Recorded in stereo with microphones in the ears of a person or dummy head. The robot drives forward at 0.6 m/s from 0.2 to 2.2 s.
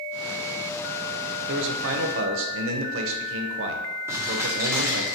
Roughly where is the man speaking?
Right.